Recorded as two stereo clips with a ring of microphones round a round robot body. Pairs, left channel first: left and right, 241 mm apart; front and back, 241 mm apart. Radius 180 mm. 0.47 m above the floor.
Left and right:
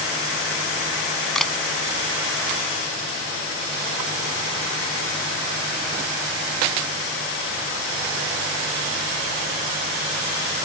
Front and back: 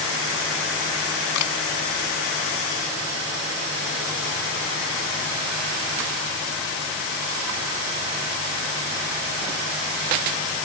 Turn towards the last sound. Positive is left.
turn(degrees=0)